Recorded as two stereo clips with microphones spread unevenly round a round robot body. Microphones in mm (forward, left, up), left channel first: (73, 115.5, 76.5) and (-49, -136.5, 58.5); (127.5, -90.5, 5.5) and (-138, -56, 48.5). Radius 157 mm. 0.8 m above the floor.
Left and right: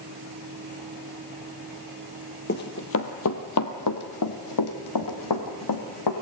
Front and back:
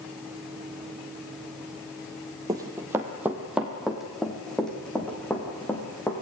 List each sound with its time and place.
2.5 s running footsteps: 110° left, 1.1 m; by 6.1 s 80° left, 2.5 m